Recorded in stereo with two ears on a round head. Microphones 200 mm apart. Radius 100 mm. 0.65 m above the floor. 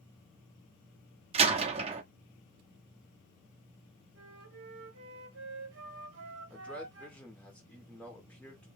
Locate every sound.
1.3 s a door slam: 25° right (ahead or behind), 0.7 m
4.2 s a flute: 55° right (ahead or behind), 1.1 m
6.5 s a man speaking: 5° left (ahead or behind), 1.6 m